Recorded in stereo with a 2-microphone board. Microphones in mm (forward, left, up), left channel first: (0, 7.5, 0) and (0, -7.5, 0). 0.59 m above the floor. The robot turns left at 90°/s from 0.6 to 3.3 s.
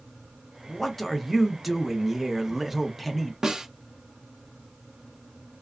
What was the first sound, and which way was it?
A man speaking, 20° left (ahead or behind).